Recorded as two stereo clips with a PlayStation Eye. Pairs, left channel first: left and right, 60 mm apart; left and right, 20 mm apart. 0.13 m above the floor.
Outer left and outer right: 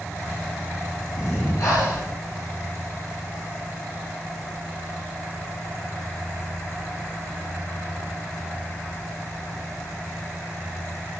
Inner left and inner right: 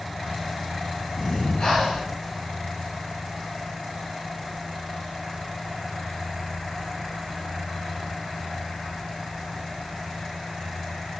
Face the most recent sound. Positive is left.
turn(degrees=65)  # may be behind; listen again after turning